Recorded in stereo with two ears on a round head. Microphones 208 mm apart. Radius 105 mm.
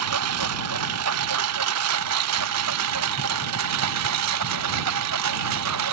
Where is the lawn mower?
70° right (ahead or behind); by 5.9 s 75° right (ahead or behind).